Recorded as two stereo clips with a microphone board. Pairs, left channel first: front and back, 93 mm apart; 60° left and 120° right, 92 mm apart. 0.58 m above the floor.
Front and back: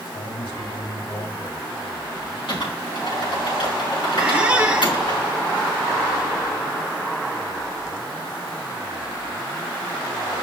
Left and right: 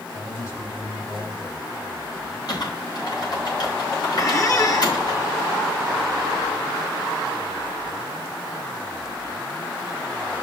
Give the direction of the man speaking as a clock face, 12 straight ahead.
12 o'clock.